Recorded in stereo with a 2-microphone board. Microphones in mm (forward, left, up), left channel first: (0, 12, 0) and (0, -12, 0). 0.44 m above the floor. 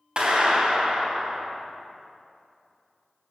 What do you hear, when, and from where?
0.2 s a clap: 35° right (ahead or behind), 3 m